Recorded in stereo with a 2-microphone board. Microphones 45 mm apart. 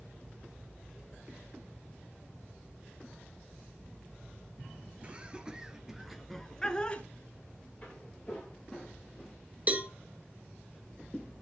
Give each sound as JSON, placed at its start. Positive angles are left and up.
{"t": 5.0, "sound": "laughter", "side_deg": -25, "distance_m": 2.0}
{"t": 7.8, "sound": "footsteps", "side_deg": 20, "distance_m": 7.0}
{"t": 9.7, "sound": "a cowbell", "side_deg": -30, "distance_m": 1.2}